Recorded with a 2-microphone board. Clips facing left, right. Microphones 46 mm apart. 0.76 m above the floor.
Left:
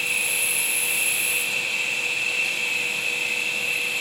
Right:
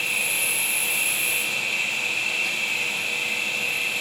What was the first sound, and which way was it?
An insect, 5° left (ahead or behind).